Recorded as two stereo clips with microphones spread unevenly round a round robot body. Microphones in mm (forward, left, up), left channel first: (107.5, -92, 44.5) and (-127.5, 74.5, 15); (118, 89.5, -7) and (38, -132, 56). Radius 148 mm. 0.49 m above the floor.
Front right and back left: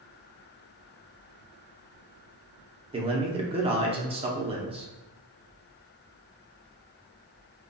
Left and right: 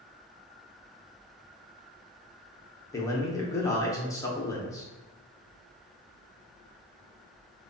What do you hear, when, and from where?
2.9 s a man speaking: 105° left, 0.7 m